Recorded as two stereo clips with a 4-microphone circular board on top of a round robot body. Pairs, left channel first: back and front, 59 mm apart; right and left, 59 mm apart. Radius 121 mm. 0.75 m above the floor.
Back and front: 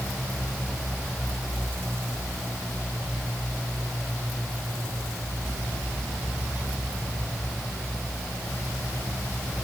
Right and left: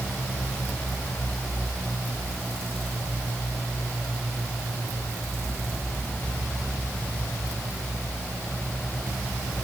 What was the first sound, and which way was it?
Only background noise.